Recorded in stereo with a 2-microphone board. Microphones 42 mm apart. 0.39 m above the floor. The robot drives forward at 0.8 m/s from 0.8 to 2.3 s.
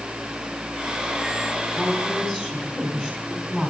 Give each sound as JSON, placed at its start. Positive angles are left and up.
{"t": 1.8, "sound": "a woman speaking", "side_deg": 15, "distance_m": 4.0}